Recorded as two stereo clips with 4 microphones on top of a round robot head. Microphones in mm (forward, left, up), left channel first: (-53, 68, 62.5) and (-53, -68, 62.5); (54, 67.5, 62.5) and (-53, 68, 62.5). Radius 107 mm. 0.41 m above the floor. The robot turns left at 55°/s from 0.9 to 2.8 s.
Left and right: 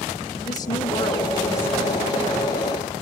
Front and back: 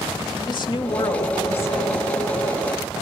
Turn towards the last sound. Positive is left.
turn(degrees=-75)